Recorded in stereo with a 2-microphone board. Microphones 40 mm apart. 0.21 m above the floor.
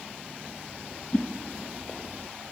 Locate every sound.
1.1 s a whoosh: 35° left (ahead or behind), 1.2 m